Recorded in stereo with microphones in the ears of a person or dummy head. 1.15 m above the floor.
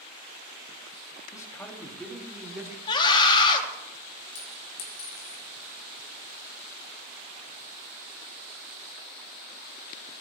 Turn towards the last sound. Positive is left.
turn(degrees=50)  # may be behind; listen again after turning